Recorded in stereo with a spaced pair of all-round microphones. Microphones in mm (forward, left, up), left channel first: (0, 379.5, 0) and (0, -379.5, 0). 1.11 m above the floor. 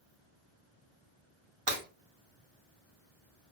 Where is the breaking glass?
45° right (ahead or behind), 1.0 m.